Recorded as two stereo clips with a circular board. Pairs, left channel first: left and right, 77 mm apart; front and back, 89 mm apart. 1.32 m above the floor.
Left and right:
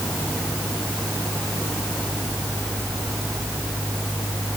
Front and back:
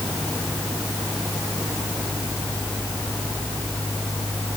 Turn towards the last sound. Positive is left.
No sound to turn to.